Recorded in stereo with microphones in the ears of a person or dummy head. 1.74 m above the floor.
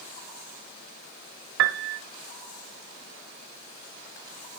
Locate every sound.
1.6 s a piano: 70° right (ahead or behind), 0.7 m